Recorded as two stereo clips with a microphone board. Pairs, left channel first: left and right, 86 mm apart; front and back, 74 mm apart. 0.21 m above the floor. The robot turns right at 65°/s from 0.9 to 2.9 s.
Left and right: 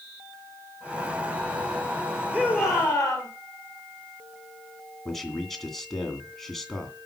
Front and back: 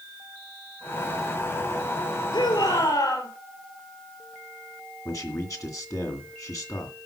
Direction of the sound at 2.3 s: 25° right.